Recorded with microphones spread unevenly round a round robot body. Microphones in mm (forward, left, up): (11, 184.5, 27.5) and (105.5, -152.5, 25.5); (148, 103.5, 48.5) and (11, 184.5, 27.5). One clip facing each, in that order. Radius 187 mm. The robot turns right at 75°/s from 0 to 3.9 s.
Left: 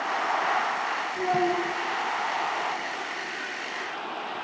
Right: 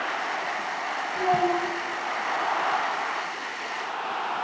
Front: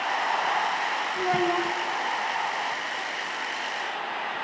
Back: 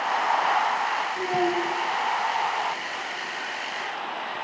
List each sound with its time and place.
1.1 s a child speaking: 45° right, 3 m; by 1.7 s straight ahead, 3 m